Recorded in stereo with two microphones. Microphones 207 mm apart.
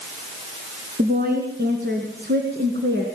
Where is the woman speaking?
50° right (ahead or behind), 3 m; by 3.1 s 65° right (ahead or behind), 3.5 m.